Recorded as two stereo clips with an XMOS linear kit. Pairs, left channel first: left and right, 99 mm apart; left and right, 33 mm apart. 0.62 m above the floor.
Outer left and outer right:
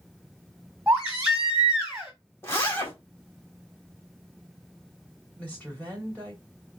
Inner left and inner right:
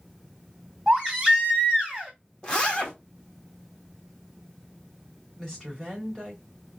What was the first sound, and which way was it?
A baby crying, 15° right (ahead or behind).